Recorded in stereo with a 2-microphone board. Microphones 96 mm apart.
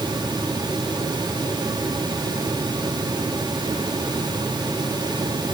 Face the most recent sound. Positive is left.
No sound to turn to.